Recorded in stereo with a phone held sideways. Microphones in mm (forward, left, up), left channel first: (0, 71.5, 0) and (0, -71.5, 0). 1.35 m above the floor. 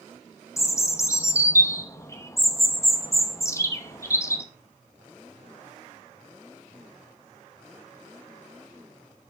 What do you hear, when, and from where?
0.6 s a bird: 20° left (ahead or behind), 0.8 m